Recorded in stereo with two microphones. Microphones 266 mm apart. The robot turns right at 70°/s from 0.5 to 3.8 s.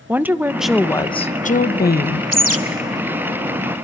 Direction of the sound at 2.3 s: 70° right (ahead or behind).